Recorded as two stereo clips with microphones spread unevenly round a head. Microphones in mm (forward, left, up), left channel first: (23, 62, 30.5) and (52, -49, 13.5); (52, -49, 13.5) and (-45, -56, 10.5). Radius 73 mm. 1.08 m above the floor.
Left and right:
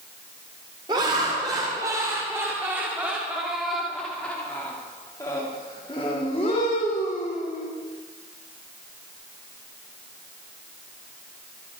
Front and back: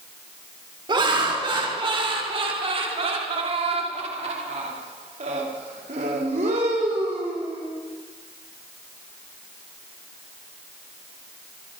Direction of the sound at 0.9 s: 140° right.